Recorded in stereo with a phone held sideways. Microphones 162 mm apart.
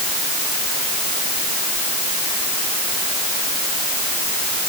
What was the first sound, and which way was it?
Only background noise.